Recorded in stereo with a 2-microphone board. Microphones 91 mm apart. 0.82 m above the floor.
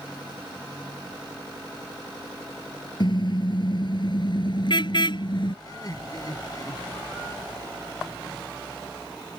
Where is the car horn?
55° left (ahead or behind).